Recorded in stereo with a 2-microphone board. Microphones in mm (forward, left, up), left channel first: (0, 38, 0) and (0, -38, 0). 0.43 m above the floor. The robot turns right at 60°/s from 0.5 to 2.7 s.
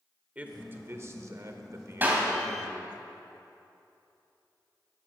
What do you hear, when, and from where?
0.3 s a man speaking: 150° right, 1.2 m; by 3.0 s 20° right, 1.2 m
2.0 s a clap: 25° right (ahead or behind), 2.5 m; by 2.3 s 10° right (ahead or behind), 2.5 m